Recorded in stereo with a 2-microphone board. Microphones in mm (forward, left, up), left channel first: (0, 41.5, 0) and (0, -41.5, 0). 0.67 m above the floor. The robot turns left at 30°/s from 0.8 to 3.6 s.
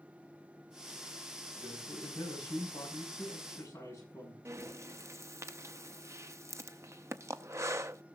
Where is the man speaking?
95° left, 6.5 m; by 4.3 s 35° left, 6.5 m.